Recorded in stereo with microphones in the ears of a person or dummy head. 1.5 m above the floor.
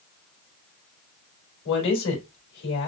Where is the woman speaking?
70° left (ahead or behind), 3 m.